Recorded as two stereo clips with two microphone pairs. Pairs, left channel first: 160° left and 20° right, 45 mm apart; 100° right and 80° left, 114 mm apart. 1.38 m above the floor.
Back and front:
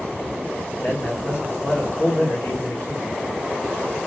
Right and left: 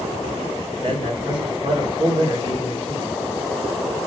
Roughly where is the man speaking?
Behind left.